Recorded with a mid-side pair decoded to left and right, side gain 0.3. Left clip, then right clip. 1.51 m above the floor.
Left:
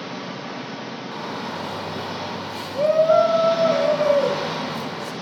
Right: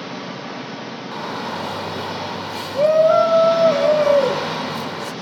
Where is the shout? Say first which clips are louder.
Right 4 dB; 45° right, 6 m.